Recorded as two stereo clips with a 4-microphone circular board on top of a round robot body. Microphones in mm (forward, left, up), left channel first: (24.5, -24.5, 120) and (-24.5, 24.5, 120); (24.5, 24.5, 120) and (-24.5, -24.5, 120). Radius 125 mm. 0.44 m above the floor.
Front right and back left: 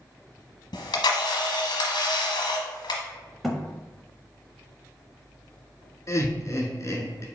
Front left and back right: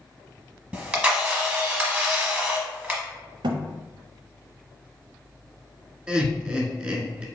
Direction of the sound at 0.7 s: 65° right.